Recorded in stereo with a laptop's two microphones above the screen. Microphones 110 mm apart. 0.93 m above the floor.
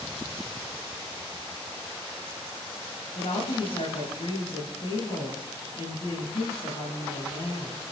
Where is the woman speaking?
70° left (ahead or behind), 5.5 m.